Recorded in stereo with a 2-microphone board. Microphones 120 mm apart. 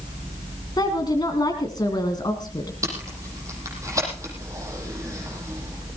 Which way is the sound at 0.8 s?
35° left (ahead or behind).